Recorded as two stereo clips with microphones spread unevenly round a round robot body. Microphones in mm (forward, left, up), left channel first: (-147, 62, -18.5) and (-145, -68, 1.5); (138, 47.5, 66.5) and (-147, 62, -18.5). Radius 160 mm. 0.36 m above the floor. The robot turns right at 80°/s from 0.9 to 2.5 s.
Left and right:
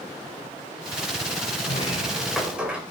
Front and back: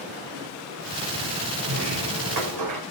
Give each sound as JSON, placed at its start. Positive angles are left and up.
{"t": 1.6, "sound": "a sliding door", "azimuth_deg": 115, "distance_m": 4.5}